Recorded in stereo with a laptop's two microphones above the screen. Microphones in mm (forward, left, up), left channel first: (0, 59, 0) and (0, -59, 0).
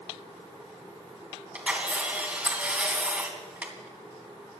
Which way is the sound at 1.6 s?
10° right (ahead or behind).